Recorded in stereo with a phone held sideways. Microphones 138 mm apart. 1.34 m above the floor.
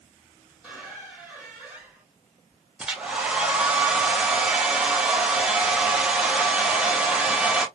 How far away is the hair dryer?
About 0.7 m.